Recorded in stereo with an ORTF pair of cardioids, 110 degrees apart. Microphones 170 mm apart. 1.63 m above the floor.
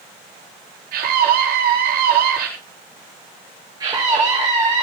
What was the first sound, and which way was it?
A scream, 60° right.